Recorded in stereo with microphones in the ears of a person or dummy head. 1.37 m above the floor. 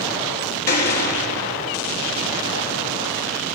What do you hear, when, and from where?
0.7 s a gunshot: 55° left (ahead or behind), 3.5 m